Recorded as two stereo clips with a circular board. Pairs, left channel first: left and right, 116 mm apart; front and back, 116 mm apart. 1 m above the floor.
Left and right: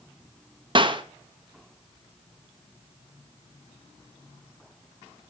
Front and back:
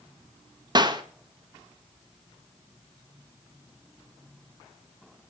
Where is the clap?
130° right, 1.2 m.